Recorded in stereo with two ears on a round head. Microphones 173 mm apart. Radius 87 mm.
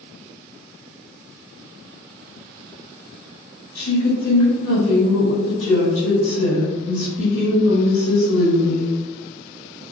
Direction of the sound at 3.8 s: 75° left (ahead or behind).